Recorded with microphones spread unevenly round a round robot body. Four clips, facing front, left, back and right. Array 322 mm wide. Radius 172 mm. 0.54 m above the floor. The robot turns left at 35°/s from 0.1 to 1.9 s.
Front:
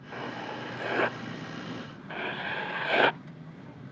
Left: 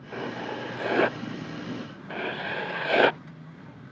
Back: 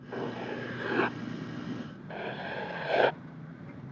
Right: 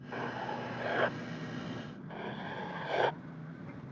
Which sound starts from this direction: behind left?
Writing, at 0.1 s.